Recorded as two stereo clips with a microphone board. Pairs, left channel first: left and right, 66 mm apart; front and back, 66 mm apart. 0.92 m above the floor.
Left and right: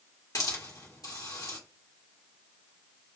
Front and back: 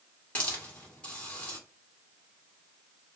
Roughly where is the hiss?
Left.